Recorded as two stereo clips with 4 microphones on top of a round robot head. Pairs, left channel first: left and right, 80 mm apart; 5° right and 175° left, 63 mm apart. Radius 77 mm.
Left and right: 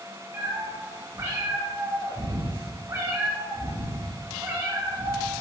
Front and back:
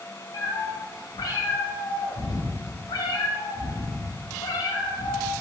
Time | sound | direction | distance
0.3 | a cat meowing | 25° right | 7 m